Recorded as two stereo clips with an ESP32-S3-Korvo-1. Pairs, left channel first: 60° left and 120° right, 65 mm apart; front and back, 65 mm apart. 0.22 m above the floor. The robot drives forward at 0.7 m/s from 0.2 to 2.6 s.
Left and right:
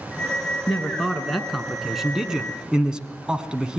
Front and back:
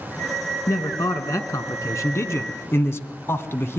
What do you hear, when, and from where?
0.7 s a man speaking: 25° right, 3 m; by 3.8 s 45° right, 2.0 m